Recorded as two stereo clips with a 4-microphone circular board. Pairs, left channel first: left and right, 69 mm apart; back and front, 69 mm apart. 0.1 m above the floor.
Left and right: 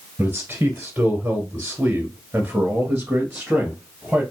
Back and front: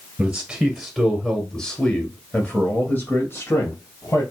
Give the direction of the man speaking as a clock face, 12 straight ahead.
2 o'clock.